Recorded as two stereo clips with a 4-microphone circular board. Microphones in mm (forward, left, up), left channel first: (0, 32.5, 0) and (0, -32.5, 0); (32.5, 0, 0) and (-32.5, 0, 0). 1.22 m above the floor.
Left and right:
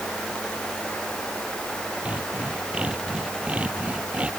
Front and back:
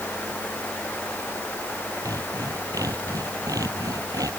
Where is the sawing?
160° right.